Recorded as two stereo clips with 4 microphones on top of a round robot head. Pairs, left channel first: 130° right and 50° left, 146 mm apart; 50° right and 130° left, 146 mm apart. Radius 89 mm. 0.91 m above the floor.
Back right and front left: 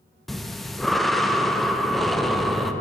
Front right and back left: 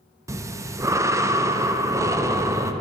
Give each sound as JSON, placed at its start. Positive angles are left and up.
{"t": 0.3, "sound": "breathing", "azimuth_deg": 140, "distance_m": 0.5}